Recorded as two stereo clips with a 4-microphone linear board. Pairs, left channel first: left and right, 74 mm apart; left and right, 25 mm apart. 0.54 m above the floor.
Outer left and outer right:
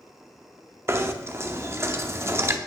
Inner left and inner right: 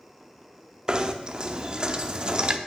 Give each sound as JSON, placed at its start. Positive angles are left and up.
{"t": 0.9, "sound": "knocking", "side_deg": -35, "distance_m": 0.7}